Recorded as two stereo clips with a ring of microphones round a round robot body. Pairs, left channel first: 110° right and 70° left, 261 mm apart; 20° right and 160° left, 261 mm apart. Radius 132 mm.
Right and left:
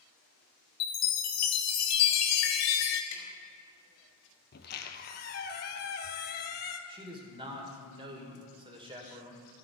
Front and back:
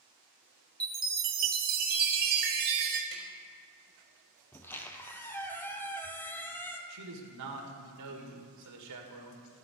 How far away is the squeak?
About 0.7 m.